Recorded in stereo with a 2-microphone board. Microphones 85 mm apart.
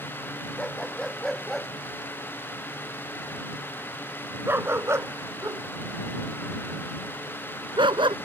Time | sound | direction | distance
0.6 | a dog barking | 5° left (ahead or behind) | ?